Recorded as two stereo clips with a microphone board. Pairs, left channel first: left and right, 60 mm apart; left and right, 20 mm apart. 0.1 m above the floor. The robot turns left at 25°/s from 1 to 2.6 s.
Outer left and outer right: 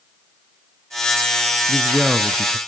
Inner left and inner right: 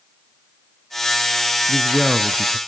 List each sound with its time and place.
1.7 s a man speaking: 10° right (ahead or behind), 1.1 m; by 2.6 s 15° right (ahead or behind), 1.1 m